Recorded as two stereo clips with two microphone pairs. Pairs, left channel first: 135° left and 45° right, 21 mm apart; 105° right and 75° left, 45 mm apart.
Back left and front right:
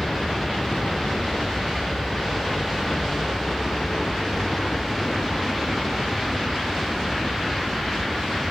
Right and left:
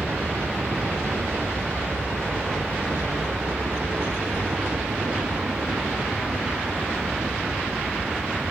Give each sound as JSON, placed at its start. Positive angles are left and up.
{"t": 0.0, "sound": "a helicopter", "azimuth_deg": 95}